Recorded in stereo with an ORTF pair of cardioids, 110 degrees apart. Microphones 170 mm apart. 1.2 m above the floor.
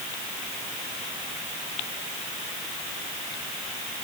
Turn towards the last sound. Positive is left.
No sound to turn to.